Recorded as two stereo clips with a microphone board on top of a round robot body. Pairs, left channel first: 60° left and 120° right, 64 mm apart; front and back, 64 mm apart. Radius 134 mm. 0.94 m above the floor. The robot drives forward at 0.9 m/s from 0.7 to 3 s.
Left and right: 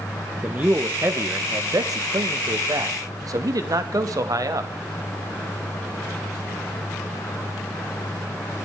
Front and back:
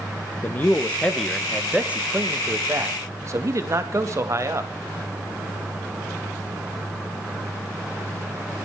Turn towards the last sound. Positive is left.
turn(degrees=-140)